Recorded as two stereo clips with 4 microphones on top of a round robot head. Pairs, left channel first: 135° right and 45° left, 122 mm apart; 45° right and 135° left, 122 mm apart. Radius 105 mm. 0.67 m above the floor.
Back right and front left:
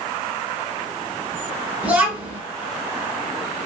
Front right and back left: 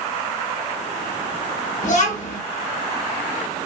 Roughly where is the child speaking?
Ahead right.